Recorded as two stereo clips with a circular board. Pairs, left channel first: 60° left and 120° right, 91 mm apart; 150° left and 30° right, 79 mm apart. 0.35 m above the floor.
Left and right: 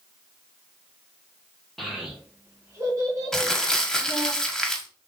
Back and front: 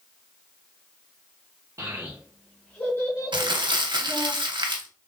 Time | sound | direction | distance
1.8 | a child speaking | 30° right | 0.7 m
3.3 | crumpling | 25° right | 0.6 m